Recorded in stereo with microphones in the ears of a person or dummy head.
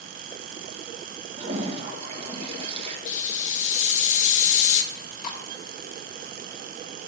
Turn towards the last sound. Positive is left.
turn(degrees=50)  # may be behind; listen again after turning